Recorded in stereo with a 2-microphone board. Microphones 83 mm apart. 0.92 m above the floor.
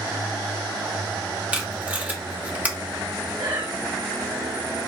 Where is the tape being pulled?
15° right (ahead or behind), 1.0 m.